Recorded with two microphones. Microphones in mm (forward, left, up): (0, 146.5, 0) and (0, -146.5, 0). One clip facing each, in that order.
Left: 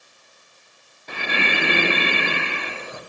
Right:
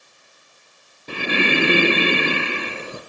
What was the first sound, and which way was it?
Breathing, 35° right (ahead or behind).